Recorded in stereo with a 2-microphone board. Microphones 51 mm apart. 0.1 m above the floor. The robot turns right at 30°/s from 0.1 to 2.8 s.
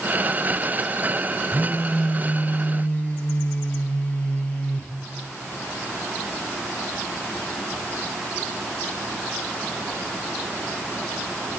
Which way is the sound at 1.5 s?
15° right.